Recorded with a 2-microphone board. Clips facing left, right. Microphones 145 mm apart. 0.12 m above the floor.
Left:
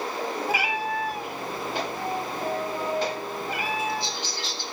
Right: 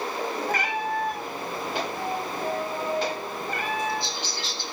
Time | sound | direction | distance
0.5 | a cat meowing | 10° left (ahead or behind) | 1.5 m